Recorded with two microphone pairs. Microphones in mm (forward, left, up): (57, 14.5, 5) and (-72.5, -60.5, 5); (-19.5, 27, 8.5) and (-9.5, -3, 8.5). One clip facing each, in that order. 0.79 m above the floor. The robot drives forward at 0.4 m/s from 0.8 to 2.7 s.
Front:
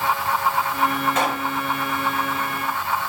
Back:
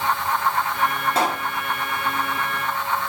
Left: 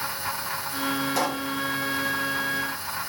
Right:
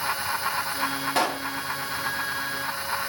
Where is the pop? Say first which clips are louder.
Even, right 1 dB; 100° right, 1.4 m; by 1.5 s 105° right, 1.4 m.